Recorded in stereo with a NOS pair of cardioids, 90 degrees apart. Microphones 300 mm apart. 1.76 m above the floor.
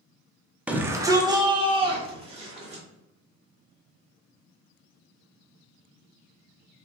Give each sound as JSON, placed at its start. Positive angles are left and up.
{"t": 0.7, "sound": "a shout", "azimuth_deg": -5, "distance_m": 0.5}